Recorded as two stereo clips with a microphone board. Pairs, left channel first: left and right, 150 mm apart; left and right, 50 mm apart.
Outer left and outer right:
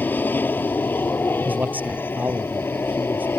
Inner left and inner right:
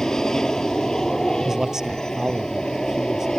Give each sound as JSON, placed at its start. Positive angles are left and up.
{"t": 0.0, "sound": "an aircraft", "side_deg": 10}
{"t": 1.4, "sound": "a man speaking", "side_deg": -10}